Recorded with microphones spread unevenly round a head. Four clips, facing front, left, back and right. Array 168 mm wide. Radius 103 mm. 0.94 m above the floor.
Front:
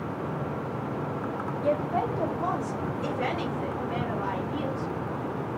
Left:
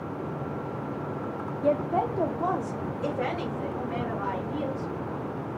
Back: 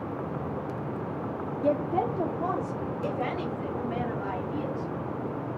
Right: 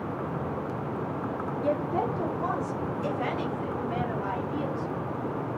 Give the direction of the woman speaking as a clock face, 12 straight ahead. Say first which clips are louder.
Left 3 dB, back 1 dB; 8 o'clock.